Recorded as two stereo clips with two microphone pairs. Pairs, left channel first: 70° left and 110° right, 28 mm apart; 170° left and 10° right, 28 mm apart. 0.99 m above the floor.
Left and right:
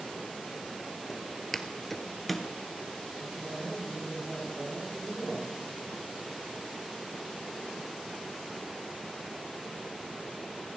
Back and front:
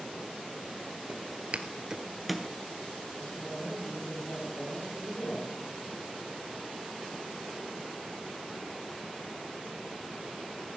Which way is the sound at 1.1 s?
10° right.